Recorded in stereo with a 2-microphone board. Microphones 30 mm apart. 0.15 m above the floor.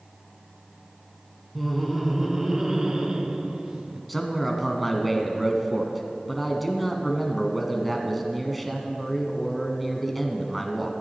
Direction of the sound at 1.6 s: 5° left (ahead or behind).